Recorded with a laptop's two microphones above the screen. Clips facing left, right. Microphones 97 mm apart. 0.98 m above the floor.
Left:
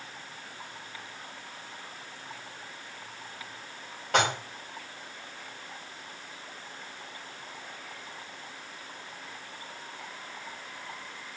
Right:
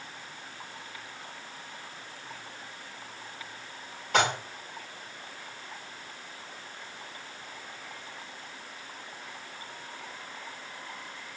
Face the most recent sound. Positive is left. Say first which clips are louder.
# even
turn(degrees=85)